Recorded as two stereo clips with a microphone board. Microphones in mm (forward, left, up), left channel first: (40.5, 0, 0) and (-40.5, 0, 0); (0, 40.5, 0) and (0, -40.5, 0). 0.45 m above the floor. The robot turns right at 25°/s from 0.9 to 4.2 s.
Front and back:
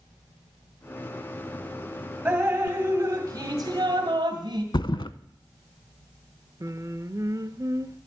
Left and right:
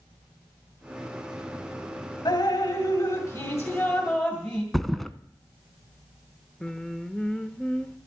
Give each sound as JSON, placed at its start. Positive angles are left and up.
{"t": 2.2, "sound": "dripping", "azimuth_deg": 110, "distance_m": 2.5}
{"t": 4.7, "sound": "a thud", "azimuth_deg": 5, "distance_m": 0.6}
{"t": 6.6, "sound": "singing", "azimuth_deg": 165, "distance_m": 0.8}